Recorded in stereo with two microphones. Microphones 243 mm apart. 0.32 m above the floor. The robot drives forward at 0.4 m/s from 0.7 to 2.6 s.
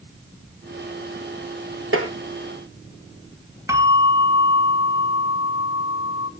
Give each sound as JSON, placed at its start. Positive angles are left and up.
{"t": 1.9, "sound": "tapping", "side_deg": -60, "distance_m": 3.5}
{"t": 3.7, "sound": "a bell", "side_deg": -10, "distance_m": 2.0}